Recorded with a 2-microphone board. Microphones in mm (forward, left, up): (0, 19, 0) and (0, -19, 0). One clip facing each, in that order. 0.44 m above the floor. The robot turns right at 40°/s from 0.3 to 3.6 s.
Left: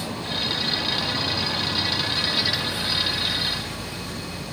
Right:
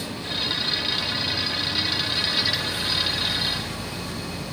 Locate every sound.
0.0 s an insect: 50° left; by 4.5 s 175° right